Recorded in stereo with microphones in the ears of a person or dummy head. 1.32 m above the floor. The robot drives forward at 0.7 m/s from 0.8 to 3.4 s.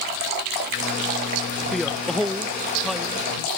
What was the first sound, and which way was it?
A man speaking, 5° left (ahead or behind).